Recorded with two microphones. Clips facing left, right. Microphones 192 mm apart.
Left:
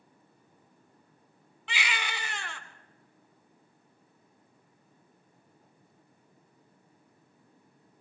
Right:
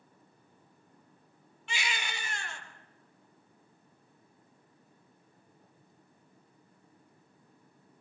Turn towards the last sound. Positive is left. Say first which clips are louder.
# left 2 dB
turn(degrees=85)